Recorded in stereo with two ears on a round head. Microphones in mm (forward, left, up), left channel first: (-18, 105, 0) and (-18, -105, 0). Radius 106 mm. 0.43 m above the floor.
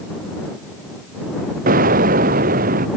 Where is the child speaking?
I don't hear a child speaking.